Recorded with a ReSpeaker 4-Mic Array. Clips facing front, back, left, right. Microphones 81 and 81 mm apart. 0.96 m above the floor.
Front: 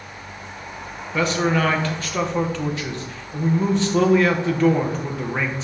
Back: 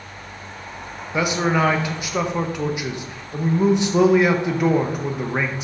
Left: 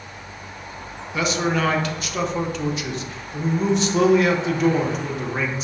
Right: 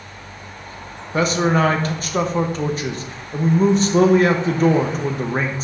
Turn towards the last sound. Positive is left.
turn(degrees=-110)